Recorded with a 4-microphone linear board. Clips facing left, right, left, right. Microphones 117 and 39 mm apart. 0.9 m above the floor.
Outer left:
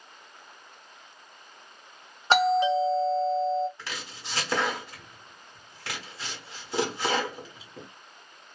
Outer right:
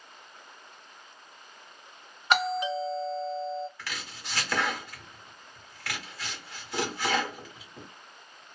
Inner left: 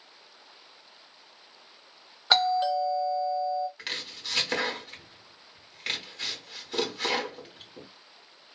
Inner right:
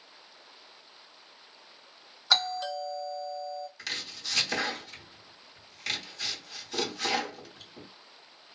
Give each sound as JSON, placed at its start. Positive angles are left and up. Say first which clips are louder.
{"t": 2.3, "sound": "a doorbell", "louder": "outer left 6 dB, inner left 5 dB", "side_deg": 30, "distance_m": 1.0}
{"t": 3.8, "sound": "chopping", "louder": "outer left 1 dB, inner left 1 dB", "side_deg": 25, "distance_m": 1.1}